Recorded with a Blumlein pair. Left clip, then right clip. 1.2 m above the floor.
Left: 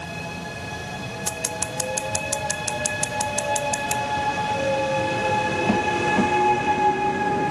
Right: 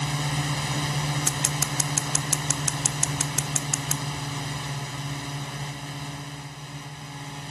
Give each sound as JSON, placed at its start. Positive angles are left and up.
{"t": 0.0, "sound": "a drone", "azimuth_deg": -50}
{"t": 1.3, "sound": "scissors", "azimuth_deg": -10}